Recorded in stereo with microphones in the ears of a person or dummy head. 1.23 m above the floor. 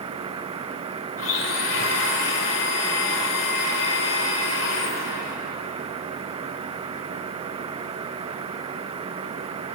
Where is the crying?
No crying in this recording.